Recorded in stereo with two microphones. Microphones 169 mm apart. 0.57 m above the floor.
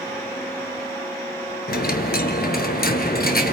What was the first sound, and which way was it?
A dropped coin, 60° left (ahead or behind).